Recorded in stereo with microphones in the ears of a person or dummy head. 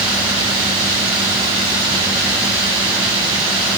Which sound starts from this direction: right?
Running water, at 0.0 s.